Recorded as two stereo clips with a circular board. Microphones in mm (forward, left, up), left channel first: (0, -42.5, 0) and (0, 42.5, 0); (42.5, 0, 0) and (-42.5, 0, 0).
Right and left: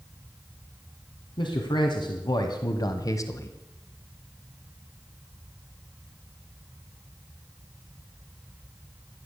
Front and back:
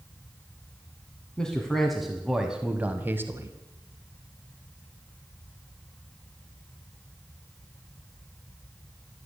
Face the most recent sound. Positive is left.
turn(degrees=-135)